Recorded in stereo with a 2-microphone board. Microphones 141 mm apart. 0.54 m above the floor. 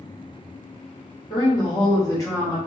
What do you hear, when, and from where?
1.3 s a woman speaking: 40° left (ahead or behind), 1.7 m; by 2.6 s 20° left (ahead or behind), 1.6 m